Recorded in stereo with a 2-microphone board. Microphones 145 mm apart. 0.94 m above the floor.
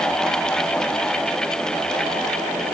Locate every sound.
Only background noise.